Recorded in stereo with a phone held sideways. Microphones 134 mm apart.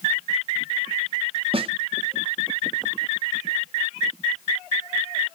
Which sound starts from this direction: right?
A snare drum, at 1.5 s.